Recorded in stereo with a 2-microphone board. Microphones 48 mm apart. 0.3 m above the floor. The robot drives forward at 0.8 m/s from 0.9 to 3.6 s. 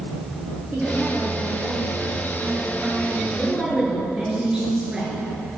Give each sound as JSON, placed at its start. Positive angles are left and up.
{"t": 0.7, "sound": "a woman speaking", "side_deg": -25, "distance_m": 5.5}
{"t": 3.3, "sound": "a woman speaking", "side_deg": -15, "distance_m": 5.0}